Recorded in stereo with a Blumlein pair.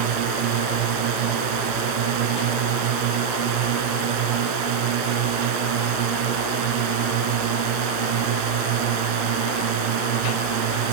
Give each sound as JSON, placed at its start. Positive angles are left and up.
{"t": 0.0, "sound": "a drone", "azimuth_deg": -45}